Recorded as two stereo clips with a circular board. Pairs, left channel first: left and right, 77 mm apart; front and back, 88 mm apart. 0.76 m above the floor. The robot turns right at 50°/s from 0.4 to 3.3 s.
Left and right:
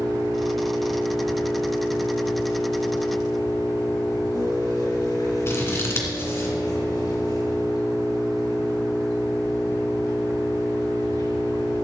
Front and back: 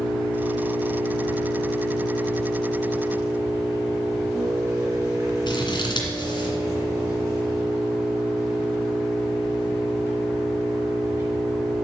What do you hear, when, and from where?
0.0 s an engine running: 25° right, 5.5 m; by 11.8 s 120° left, 5.5 m
5.5 s scissors: 35° left, 2.5 m